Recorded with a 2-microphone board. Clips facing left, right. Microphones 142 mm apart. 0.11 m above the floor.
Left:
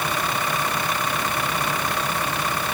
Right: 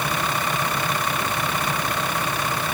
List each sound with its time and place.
Only background noise.